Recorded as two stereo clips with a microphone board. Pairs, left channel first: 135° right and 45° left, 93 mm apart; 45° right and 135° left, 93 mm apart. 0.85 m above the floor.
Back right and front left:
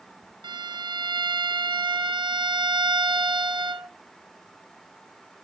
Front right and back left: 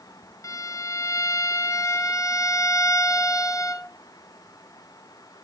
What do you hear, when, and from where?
0.4 s a violin: 10° left, 0.5 m